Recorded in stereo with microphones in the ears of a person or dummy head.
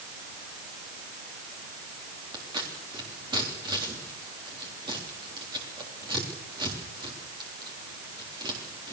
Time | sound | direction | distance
2.3 | scissors | 15° right (ahead or behind) | 3.5 m